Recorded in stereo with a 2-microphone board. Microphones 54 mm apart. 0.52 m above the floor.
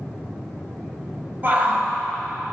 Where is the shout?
40° right (ahead or behind), 3 m.